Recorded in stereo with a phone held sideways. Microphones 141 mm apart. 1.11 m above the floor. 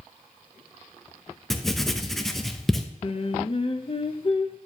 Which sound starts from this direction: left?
Singing, at 3.0 s.